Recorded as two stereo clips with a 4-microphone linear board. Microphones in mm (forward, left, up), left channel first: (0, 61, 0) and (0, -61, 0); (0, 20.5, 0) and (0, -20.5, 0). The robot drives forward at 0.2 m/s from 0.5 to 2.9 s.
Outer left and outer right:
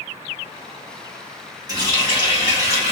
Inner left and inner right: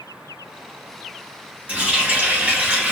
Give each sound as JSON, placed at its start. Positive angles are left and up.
{"t": 1.7, "sound": "a running tap", "side_deg": -35, "distance_m": 1.4}